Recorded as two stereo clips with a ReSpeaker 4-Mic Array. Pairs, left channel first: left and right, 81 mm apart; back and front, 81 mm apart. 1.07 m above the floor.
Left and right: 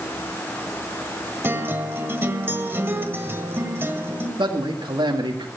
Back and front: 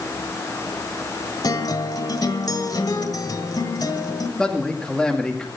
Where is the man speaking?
100° right, 2 m.